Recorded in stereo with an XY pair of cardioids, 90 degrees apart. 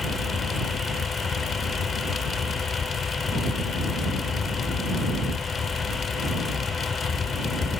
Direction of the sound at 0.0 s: 50° left.